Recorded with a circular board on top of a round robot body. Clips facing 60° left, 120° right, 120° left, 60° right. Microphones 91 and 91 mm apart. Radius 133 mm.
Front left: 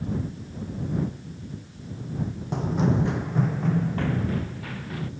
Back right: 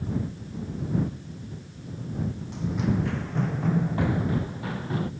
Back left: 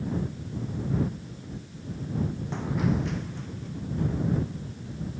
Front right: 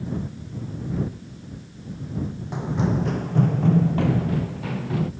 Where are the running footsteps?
20° left; by 5.1 s 55° right.